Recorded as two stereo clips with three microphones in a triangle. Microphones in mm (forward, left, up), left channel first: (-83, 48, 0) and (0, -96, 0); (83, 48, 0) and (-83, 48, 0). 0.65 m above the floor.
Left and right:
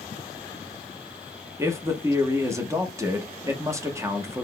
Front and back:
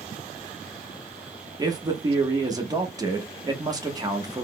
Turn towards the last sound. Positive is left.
turn(degrees=-125)